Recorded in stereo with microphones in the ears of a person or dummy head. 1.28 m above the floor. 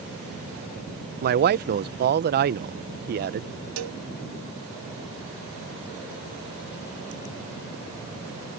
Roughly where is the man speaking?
Right.